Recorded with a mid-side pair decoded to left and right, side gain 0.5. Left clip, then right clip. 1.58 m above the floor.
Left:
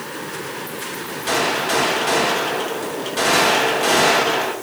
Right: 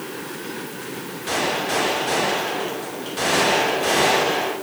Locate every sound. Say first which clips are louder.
1.3 s a gunshot: left 3 dB; 35° left, 2.5 m